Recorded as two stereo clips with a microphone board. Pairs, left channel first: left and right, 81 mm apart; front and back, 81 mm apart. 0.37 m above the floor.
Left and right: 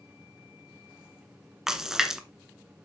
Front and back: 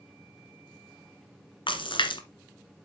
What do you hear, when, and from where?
1.7 s a splash: 5° right, 1.5 m